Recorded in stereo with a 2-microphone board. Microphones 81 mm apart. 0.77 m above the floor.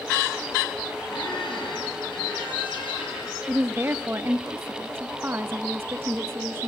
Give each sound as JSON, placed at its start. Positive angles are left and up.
{"t": 1.1, "sound": "a squeak", "side_deg": 80, "distance_m": 8.5}
{"t": 3.5, "sound": "a woman speaking", "side_deg": -25, "distance_m": 0.6}